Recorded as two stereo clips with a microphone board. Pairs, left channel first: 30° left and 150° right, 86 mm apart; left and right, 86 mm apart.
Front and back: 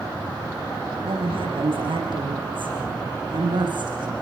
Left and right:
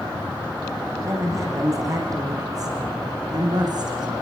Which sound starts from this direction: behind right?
A woman speaking, at 1.0 s.